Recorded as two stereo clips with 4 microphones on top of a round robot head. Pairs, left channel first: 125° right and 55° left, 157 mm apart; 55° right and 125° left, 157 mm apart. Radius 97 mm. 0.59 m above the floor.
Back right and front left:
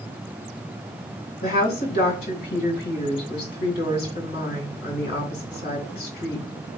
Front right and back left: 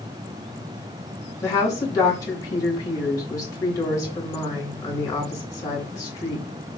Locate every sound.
1.4 s a woman speaking: 125° right, 2.5 m